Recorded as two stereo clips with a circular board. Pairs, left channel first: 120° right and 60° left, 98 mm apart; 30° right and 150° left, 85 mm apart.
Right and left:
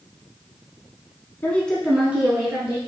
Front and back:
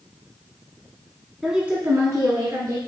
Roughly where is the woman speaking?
Behind right.